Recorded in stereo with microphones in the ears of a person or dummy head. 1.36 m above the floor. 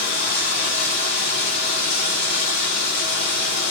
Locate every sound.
0.0 s running water: 65° left (ahead or behind), 2 m